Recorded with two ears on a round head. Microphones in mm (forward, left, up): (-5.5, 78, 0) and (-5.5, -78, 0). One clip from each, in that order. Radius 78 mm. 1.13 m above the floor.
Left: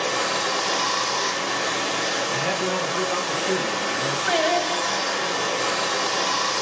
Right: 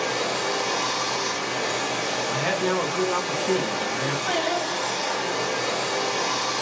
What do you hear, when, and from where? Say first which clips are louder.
0.0 s running water: left 2 dB; 45° left (ahead or behind), 0.8 m
2.3 s a man speaking: even; 15° right (ahead or behind), 0.7 m
4.3 s singing: left 6 dB; 75° left (ahead or behind), 0.9 m